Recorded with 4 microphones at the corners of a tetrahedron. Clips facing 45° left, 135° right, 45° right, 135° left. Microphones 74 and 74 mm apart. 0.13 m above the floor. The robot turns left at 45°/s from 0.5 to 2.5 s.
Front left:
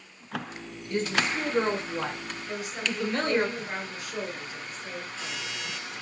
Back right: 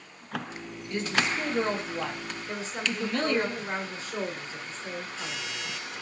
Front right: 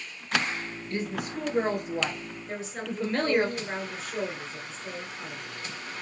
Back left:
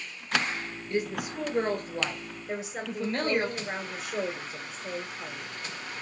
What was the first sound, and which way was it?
A woman speaking, 75° left.